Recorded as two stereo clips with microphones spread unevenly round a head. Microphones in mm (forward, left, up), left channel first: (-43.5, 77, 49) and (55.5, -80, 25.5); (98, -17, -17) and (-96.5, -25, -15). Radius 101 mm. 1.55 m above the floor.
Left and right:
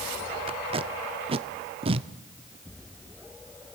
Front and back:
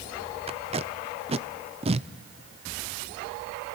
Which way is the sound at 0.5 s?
115° right.